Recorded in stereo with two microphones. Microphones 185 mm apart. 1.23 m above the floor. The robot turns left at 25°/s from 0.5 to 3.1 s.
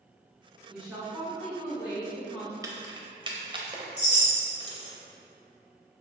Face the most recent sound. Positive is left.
turn(degrees=70)  # may be behind; listen again after turning